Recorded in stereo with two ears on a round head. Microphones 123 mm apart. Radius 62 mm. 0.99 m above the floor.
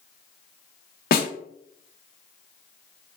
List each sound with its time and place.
1.1 s a snare drum: 70° left (ahead or behind), 0.6 m